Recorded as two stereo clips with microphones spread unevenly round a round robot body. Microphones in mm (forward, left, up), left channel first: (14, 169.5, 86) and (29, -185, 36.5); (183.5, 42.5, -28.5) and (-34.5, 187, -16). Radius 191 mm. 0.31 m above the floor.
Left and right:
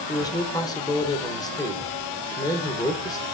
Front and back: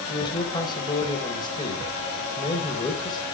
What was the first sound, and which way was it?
A man speaking, 10° left.